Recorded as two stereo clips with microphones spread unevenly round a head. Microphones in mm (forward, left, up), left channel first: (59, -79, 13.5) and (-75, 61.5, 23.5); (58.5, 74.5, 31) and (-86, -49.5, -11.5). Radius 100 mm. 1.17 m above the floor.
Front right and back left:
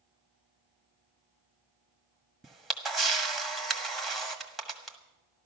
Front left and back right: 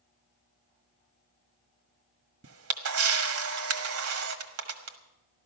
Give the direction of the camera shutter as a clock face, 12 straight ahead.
5 o'clock.